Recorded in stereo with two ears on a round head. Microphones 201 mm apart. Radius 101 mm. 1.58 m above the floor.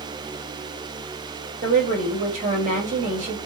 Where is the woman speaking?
35° right (ahead or behind), 2.5 m.